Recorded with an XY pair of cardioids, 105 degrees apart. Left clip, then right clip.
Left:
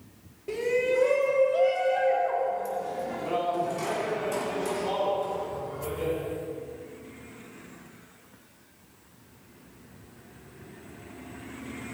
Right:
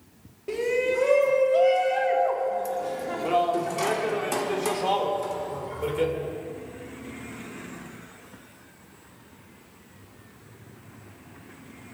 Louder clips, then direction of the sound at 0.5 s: Right 1 dB; 20° right.